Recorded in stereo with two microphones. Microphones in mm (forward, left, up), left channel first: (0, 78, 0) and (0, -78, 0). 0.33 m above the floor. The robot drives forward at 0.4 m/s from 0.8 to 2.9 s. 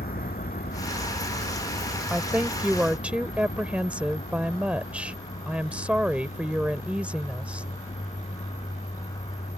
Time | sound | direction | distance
0.0 | a vehicle | 70° left (ahead or behind) | ?
2.1 | a woman speaking | 5° right (ahead or behind) | ?